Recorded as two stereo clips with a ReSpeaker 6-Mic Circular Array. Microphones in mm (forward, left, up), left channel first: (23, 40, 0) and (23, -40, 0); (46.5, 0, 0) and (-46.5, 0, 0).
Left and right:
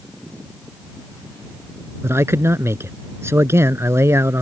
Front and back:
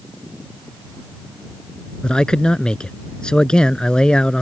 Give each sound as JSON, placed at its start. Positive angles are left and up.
{"t": 2.0, "sound": "a man speaking", "azimuth_deg": -75}